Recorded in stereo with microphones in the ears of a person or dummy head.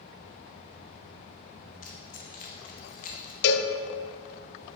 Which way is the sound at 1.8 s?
40° left (ahead or behind).